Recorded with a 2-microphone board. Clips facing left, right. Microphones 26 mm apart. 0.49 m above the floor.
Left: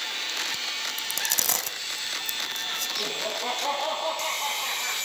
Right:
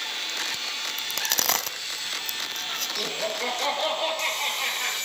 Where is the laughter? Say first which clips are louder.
Right 1 dB; 75° right (ahead or behind), 7 m.